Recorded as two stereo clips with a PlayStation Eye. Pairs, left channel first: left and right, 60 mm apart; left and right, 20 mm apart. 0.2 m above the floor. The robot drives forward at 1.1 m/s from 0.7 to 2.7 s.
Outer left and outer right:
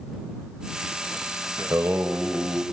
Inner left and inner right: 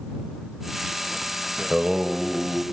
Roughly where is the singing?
Right.